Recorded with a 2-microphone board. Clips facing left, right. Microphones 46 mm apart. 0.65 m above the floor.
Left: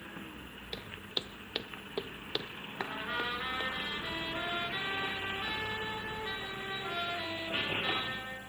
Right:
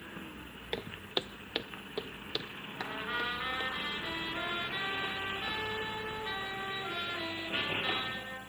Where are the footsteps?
40° right (ahead or behind), 0.9 m; by 3.7 s 35° left (ahead or behind), 2 m.